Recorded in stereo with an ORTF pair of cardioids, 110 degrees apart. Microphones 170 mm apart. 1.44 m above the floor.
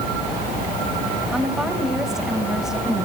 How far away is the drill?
I don't hear a drill.